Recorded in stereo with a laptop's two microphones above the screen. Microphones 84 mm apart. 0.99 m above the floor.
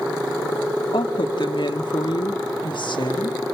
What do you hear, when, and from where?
0.9 s a woman speaking: 70° left (ahead or behind), 1.7 m